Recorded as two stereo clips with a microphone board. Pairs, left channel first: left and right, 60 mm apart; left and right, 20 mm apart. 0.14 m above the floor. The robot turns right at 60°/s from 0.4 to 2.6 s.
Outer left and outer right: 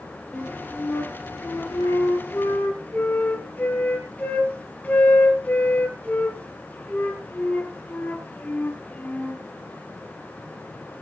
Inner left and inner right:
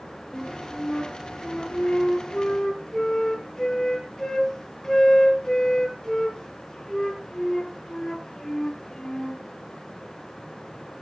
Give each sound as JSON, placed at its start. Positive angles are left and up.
{"t": 0.3, "sound": "a flute", "azimuth_deg": 20, "distance_m": 3.5}